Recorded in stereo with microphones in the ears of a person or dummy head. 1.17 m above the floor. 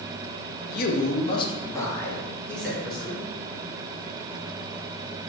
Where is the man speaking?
55° left (ahead or behind), 0.5 m; by 3.3 s centre (ahead or behind), 1.4 m.